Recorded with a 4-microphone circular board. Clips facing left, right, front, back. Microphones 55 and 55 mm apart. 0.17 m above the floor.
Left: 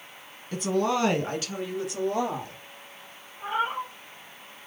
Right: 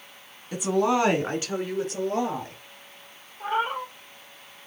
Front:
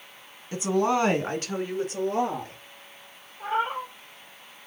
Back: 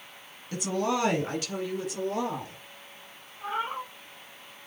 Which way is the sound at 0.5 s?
20° right.